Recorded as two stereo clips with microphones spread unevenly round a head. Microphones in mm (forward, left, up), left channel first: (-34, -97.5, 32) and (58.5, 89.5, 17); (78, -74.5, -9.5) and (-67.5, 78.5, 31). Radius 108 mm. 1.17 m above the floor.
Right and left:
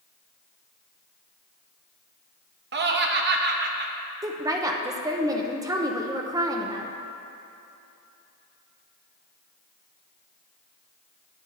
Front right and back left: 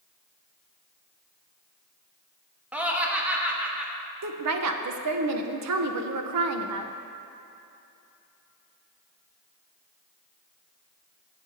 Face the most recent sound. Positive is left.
turn(degrees=135)